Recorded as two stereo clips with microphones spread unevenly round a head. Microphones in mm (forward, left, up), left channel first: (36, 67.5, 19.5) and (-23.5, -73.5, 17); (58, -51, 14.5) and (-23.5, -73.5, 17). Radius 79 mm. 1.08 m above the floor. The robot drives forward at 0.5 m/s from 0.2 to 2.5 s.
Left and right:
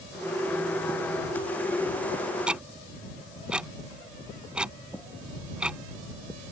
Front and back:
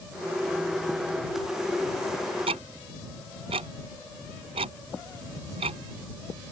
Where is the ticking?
165° left.